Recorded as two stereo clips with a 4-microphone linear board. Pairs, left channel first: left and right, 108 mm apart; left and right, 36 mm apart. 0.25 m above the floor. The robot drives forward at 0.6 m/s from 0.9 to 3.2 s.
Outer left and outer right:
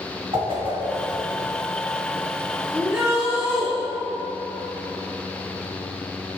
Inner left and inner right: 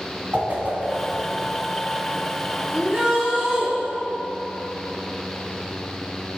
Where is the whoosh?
55° right (ahead or behind), 2.5 m.